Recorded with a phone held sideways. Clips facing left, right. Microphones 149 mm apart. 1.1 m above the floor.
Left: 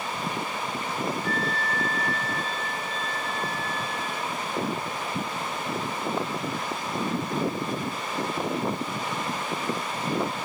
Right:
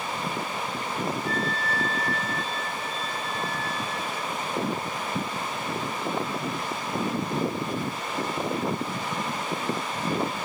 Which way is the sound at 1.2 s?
55° left (ahead or behind).